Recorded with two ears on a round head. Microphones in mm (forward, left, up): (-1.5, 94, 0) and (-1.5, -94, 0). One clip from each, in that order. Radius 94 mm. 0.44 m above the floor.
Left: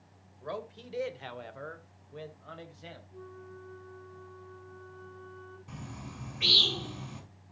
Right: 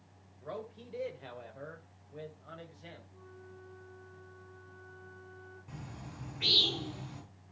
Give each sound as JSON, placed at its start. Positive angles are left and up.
{"t": 0.4, "sound": "a man speaking", "side_deg": 35, "distance_m": 2.0}
{"t": 3.1, "sound": "a flute", "side_deg": 15, "distance_m": 5.0}
{"t": 5.7, "sound": "a bird", "side_deg": 25, "distance_m": 5.0}